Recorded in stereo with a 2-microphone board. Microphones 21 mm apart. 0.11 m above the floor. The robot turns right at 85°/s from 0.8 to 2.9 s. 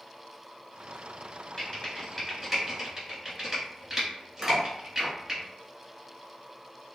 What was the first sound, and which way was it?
Typing on a keyboard, 25° left (ahead or behind).